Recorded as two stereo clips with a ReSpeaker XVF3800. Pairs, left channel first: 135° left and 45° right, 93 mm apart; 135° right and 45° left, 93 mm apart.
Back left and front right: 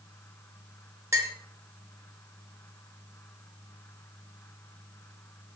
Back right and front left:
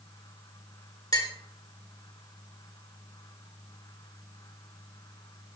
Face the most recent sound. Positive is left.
turn(degrees=-95)